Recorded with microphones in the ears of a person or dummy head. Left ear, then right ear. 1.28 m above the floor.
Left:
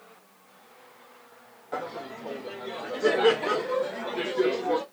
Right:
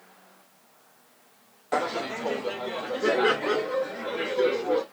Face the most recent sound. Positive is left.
turn(degrees=25)  # may be behind; listen again after turning